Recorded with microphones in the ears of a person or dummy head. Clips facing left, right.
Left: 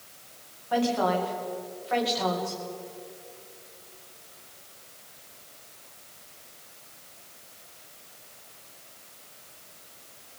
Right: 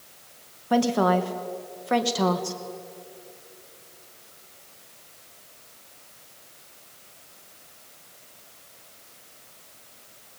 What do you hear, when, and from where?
0.7 s a woman speaking: 55° right (ahead or behind), 2 m